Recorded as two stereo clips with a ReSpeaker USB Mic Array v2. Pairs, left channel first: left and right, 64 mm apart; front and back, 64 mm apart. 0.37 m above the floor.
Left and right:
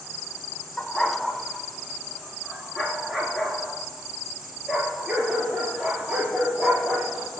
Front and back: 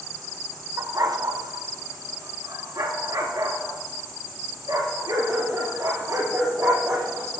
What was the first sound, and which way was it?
A dog barking, 175° left.